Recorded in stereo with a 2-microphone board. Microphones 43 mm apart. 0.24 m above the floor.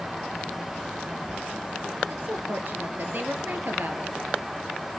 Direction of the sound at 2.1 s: 50° right (ahead or behind).